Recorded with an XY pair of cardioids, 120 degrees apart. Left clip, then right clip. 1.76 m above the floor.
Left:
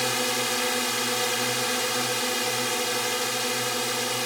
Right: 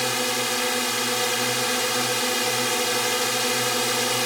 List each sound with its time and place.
0.0 s a drone: 5° right; by 4.3 s 20° right